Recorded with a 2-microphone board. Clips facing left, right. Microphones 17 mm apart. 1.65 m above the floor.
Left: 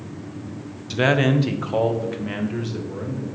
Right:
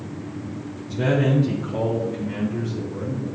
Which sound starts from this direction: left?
A man speaking, at 0.9 s.